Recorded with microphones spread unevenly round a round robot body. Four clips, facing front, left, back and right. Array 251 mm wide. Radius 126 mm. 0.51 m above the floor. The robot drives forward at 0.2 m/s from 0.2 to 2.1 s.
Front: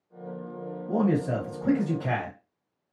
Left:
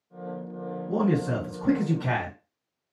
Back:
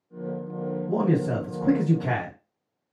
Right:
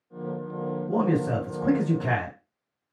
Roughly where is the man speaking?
Behind right.